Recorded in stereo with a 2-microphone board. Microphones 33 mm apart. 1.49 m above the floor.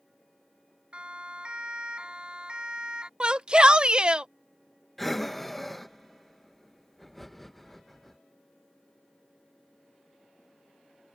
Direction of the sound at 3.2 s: 30° right (ahead or behind).